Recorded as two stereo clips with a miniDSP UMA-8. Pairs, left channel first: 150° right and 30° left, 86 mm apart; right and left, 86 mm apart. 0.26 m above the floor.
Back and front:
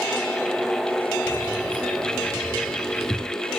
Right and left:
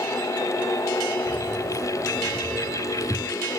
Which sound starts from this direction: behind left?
Keys jangling, at 1.3 s.